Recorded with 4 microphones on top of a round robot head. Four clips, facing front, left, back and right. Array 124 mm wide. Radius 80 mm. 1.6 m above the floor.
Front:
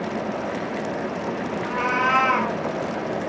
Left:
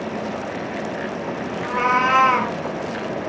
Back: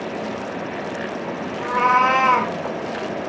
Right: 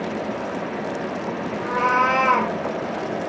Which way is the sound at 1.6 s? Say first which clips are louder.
Even, back 7 dB; 145° right.